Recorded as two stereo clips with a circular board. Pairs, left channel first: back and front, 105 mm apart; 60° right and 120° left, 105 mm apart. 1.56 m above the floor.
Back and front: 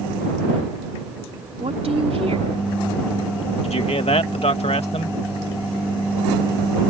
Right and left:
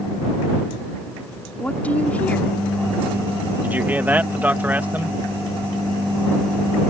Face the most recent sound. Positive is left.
turn(degrees=-165)